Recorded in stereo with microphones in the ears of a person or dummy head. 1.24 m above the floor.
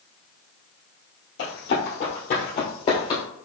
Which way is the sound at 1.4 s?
55° left (ahead or behind).